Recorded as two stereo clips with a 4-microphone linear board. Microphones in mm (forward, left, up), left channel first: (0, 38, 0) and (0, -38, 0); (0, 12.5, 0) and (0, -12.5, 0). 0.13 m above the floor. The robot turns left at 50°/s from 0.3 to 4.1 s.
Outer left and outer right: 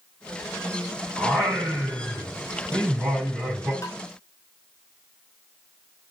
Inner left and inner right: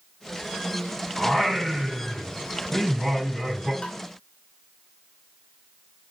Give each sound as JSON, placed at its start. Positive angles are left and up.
{"t": 1.2, "sound": "singing", "azimuth_deg": 125, "distance_m": 3.5}
{"t": 3.8, "sound": "tapping", "side_deg": 40, "distance_m": 0.7}